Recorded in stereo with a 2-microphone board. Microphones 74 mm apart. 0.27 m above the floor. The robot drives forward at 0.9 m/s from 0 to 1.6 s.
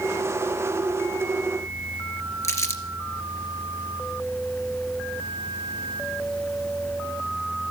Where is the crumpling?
40° left (ahead or behind), 2 m.